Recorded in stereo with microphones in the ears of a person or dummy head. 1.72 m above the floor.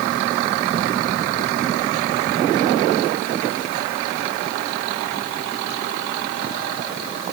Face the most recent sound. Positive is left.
No sound to turn to.